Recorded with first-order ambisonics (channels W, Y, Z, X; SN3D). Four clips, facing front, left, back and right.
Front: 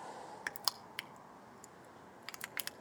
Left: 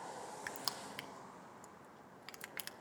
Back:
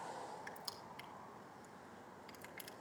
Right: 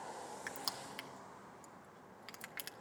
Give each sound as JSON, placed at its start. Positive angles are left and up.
{"t": 0.5, "sound": "crushing", "azimuth_deg": 5, "distance_m": 0.6}